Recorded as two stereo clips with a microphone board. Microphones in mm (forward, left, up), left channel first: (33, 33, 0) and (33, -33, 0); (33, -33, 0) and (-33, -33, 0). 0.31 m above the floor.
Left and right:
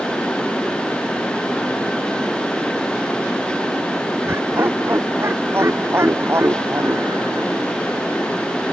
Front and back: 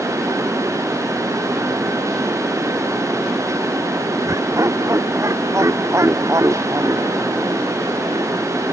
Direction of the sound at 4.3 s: 145° right.